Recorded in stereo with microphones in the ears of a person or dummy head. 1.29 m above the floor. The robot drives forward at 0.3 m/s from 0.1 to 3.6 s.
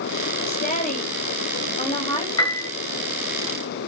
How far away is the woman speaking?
About 0.9 m.